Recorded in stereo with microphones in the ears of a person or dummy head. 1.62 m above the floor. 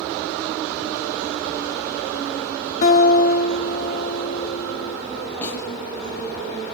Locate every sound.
2.8 s a guitar: 40° left (ahead or behind), 2 m
5.4 s a snare drum: 10° left (ahead or behind), 8 m